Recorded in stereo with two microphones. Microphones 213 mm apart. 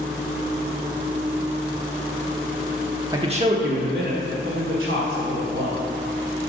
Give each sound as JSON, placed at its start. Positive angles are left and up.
{"t": 3.1, "sound": "a man speaking", "side_deg": -20, "distance_m": 0.8}